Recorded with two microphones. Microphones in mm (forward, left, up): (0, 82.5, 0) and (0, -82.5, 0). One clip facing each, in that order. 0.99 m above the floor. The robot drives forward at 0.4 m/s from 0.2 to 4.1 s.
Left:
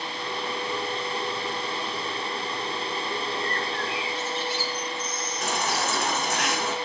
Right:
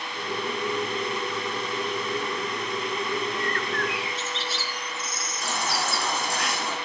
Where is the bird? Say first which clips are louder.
Right 2 dB; 85° right, 2 m; by 6.1 s 75° right (ahead or behind), 2 m.